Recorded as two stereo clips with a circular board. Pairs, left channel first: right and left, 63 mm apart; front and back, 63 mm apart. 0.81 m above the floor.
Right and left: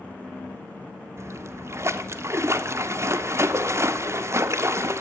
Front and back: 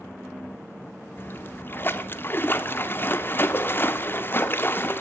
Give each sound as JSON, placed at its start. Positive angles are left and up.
{"t": 1.2, "sound": "a splash", "azimuth_deg": 55, "distance_m": 0.6}